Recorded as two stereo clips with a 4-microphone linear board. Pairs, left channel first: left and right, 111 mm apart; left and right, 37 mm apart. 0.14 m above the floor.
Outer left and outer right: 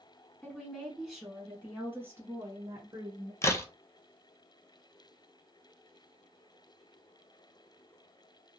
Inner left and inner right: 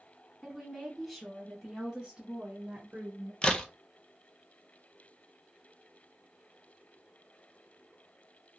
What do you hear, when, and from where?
0.4 s a woman speaking: 10° left (ahead or behind), 1.3 m; by 3.3 s 35° right (ahead or behind), 2 m
3.4 s a crack: 25° left (ahead or behind), 0.6 m